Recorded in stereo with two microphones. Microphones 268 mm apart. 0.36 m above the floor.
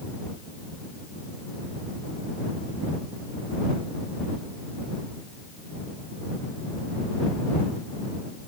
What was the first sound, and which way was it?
Only background noise.